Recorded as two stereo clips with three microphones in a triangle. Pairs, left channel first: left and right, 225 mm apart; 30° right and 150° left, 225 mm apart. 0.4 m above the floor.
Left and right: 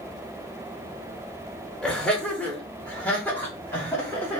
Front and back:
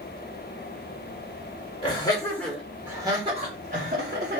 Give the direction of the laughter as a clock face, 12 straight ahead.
12 o'clock.